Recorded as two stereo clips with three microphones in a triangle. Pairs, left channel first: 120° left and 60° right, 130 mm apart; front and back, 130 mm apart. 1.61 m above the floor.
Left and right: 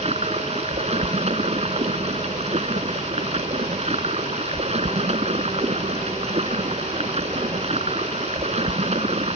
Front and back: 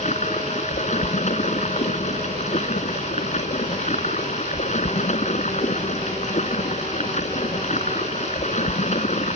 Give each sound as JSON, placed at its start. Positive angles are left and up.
{"t": 0.0, "sound": "running water", "azimuth_deg": -25}